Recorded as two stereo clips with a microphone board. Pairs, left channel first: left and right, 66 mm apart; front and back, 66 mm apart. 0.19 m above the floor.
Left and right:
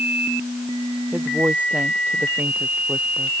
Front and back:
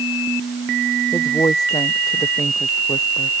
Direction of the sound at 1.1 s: 25° right.